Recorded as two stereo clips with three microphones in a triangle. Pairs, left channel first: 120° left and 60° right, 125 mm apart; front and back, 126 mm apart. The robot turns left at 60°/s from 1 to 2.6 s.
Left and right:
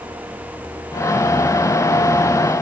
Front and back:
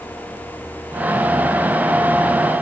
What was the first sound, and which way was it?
Only background noise.